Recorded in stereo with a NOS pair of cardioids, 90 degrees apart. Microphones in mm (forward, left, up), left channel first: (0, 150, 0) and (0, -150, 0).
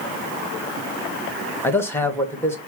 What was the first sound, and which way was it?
A man speaking, 10° left.